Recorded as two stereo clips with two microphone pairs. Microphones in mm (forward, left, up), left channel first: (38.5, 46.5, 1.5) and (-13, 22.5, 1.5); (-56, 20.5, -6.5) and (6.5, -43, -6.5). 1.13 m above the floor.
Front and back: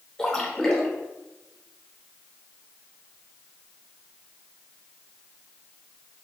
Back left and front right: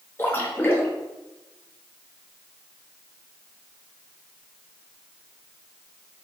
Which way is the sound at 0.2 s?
95° left.